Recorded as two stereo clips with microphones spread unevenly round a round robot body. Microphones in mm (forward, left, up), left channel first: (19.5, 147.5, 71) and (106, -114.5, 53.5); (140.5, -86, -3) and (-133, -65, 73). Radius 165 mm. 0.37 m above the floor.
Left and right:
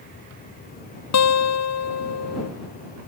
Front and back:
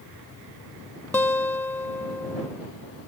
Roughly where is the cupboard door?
I don't hear a cupboard door.